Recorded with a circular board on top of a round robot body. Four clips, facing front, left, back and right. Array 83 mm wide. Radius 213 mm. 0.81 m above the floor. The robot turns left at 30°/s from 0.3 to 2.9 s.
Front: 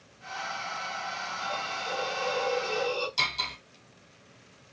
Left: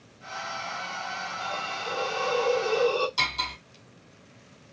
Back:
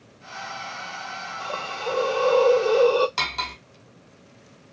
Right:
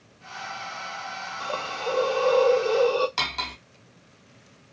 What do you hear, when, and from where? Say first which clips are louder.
1.4 s a hiss: right 6 dB, back 6 dB; 115° right, 0.7 m; by 3.1 s 160° right, 0.7 m
3.2 s cutlery clinking: even, back 5 dB; 135° right, 1.0 m